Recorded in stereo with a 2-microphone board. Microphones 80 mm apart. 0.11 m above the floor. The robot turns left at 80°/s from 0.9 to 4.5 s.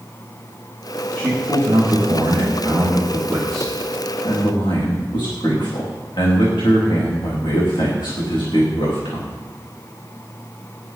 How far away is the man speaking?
About 9 m.